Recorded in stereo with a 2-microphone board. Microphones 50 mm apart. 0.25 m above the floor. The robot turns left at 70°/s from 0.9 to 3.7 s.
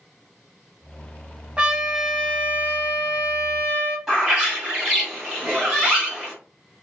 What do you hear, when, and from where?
1.6 s a trumpet: 150° right, 0.8 m; by 4.0 s 60° left, 0.8 m
4.1 s a bird: 10° right (ahead or behind), 1.9 m